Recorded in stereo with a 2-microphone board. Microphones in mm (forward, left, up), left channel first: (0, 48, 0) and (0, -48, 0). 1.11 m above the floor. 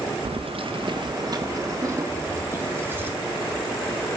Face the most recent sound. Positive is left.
turn(degrees=-25)  # may be behind; listen again after turning